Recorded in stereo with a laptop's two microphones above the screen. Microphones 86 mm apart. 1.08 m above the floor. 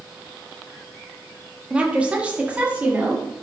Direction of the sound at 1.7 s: 10° right (ahead or behind).